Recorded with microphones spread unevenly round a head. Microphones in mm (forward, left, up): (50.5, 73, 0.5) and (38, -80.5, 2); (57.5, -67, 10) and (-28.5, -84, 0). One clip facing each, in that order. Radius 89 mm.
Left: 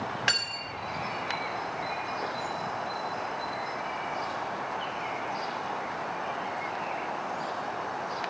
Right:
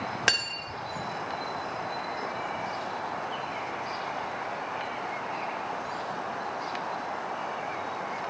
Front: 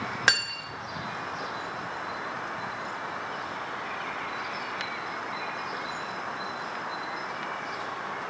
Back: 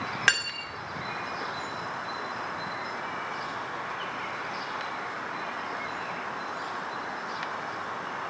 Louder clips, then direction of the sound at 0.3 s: Right 2 dB, front 1 dB; 60° right.